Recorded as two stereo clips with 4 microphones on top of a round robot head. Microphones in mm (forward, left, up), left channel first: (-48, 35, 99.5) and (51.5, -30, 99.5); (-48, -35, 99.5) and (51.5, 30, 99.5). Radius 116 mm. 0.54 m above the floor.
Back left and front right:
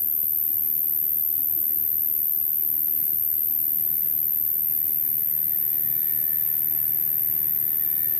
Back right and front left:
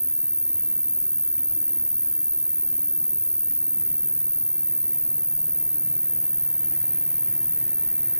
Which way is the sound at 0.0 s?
110° left.